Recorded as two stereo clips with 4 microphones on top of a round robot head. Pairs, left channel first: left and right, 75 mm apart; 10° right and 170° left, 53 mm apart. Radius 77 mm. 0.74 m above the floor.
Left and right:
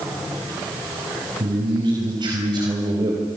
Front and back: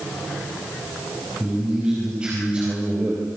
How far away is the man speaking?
About 5.5 m.